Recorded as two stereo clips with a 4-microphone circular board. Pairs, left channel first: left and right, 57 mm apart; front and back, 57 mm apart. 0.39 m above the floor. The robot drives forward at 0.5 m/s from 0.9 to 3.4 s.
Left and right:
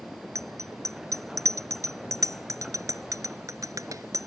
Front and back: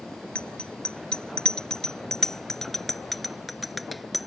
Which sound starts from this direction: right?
A bicycle bell, at 0.3 s.